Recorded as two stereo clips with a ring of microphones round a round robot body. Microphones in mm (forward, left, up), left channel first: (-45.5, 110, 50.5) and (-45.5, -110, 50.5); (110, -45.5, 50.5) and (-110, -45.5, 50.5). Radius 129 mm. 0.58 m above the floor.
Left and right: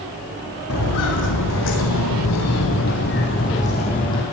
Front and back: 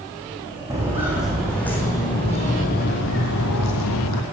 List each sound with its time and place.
0.7 s footsteps: 100° left, 1.9 m; by 4.2 s 15° left, 1.7 m